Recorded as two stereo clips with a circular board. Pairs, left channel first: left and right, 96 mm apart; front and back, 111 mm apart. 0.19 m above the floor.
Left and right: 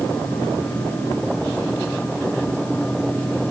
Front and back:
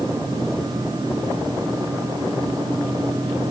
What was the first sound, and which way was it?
Only background noise.